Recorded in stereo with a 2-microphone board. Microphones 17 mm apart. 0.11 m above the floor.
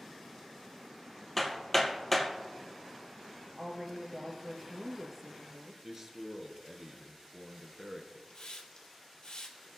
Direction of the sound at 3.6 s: 20° right (ahead or behind).